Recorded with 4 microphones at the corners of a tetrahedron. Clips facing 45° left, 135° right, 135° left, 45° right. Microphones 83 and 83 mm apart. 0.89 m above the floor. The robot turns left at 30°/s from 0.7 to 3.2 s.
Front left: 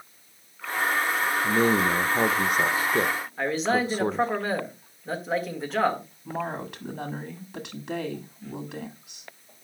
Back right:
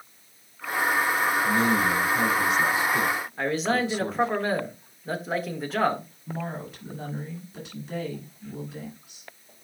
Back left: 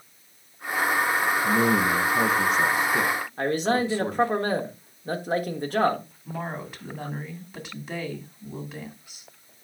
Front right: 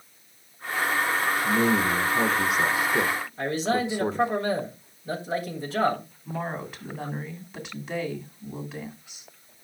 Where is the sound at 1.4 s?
70° left, 0.6 m; by 4.3 s 20° left, 0.6 m.